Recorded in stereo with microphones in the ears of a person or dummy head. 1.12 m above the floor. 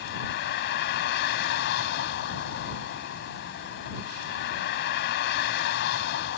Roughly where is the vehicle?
Left.